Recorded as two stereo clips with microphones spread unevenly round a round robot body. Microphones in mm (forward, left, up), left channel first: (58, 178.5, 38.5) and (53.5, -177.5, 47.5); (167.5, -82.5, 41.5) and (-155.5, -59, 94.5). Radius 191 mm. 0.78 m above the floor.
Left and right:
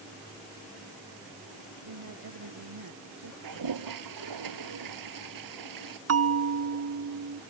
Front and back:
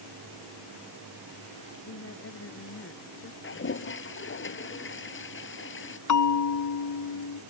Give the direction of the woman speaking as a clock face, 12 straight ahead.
2 o'clock.